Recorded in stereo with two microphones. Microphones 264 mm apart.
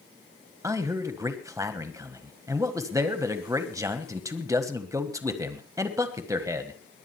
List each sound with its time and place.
0.6 s a man speaking: 15° right (ahead or behind), 1.5 m